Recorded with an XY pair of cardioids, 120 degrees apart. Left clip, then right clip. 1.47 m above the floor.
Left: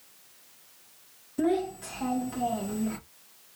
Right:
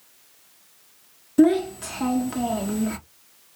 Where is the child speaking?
55° right, 0.8 m.